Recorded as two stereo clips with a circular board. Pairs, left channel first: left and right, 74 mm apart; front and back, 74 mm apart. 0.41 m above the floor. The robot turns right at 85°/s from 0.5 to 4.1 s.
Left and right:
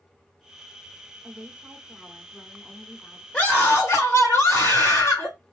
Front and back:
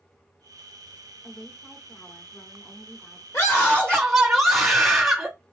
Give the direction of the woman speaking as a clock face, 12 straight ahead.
3 o'clock.